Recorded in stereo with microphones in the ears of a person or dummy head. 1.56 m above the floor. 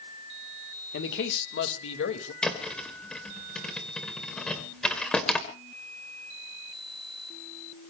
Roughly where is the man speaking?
Left.